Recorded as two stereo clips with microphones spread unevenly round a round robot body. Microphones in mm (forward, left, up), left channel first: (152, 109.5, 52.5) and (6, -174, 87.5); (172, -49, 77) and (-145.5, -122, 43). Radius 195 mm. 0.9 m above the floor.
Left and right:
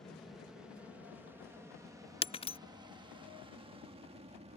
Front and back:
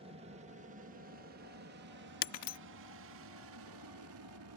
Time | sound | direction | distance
0.0 | an aircraft | 140° left | ?
2.2 | breaking glass | 10° right | ?